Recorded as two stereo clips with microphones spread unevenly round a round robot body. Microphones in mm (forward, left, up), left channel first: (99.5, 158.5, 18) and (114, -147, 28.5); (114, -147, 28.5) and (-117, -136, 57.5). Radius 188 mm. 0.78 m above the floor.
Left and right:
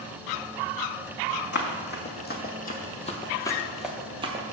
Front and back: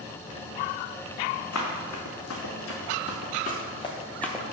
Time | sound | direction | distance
1.5 | running footsteps | 40° left | 1.8 m